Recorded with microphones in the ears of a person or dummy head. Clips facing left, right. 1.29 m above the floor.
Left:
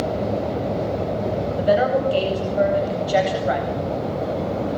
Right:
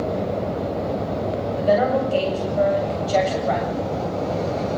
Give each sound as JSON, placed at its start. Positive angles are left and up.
{"t": 1.6, "sound": "a woman speaking", "side_deg": 10, "distance_m": 8.5}